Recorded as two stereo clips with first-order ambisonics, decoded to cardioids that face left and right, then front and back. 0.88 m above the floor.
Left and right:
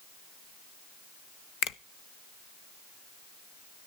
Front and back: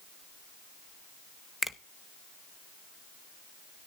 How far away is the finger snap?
About 0.9 m.